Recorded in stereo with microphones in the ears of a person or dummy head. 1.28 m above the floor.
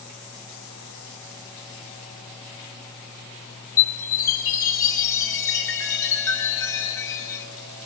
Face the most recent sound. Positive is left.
turn(degrees=15)  # may be behind; listen again after turning